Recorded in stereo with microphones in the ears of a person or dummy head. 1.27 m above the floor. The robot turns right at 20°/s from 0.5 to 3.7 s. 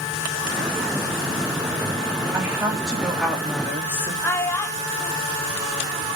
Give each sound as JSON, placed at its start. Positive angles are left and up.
{"t": 2.3, "sound": "a woman speaking", "side_deg": -15, "distance_m": 3.5}
{"t": 4.2, "sound": "a child speaking", "side_deg": 15, "distance_m": 1.5}